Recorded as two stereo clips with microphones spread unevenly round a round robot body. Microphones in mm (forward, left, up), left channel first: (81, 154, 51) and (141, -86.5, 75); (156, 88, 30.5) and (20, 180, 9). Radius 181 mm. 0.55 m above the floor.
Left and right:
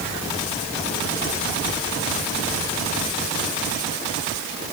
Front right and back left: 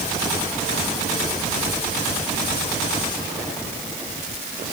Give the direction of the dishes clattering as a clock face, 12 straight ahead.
No dishes clattering in this recording.